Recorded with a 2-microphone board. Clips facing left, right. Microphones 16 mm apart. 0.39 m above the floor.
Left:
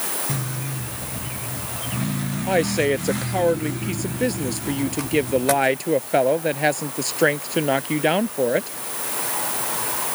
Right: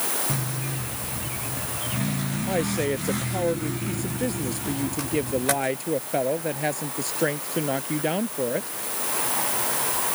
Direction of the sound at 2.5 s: 35° left (ahead or behind).